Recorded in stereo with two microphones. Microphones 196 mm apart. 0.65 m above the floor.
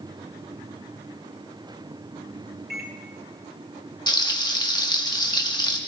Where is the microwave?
60° right (ahead or behind), 2 m.